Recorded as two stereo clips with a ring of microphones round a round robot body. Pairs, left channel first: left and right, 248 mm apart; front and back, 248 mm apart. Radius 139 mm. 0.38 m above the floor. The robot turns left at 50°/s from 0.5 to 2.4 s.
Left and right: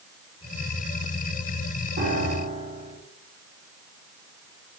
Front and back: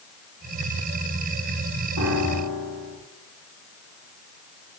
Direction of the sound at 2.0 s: 135° right.